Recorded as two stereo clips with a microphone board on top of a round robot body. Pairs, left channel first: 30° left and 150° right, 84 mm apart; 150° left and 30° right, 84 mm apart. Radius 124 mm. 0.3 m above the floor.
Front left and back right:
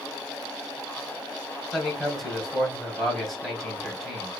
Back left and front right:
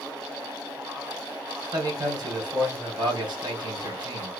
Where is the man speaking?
60° right, 2.5 m.